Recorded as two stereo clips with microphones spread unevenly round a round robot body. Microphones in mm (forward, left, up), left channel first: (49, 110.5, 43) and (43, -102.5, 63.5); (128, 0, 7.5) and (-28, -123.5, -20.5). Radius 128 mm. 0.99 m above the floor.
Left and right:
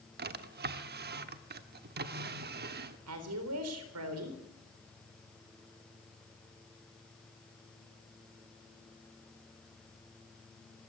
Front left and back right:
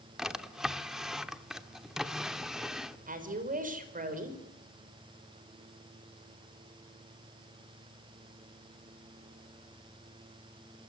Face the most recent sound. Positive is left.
turn(degrees=-95)